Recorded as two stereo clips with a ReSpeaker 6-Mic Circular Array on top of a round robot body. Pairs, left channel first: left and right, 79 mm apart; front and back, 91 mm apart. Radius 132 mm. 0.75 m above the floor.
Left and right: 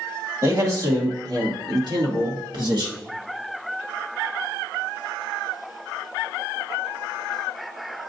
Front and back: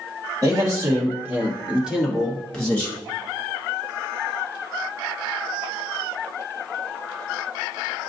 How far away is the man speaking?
About 2 m.